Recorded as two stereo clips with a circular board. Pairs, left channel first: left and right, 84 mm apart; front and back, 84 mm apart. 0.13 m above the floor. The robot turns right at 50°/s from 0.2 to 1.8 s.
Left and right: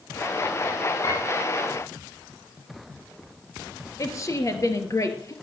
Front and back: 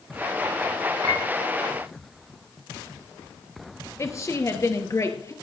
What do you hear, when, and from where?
1.0 s a piano: 140° left, 10 m; by 1.2 s 155° left, 10 m
4.0 s a woman speaking: 45° left, 3 m